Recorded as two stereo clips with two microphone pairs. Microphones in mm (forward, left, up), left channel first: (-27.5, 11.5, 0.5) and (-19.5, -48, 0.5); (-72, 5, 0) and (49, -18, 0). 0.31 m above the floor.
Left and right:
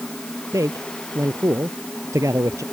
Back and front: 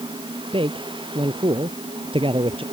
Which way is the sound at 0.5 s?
55° right.